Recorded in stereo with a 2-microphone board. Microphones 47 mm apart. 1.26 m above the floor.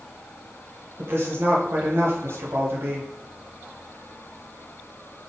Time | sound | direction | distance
1.0 | a woman speaking | 50° right (ahead or behind) | 1.4 m